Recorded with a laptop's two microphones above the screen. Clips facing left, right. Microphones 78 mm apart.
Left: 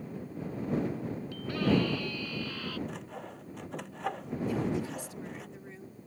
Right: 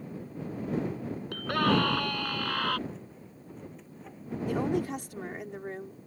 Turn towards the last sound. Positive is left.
turn(degrees=-65)  # may be behind; listen again after turning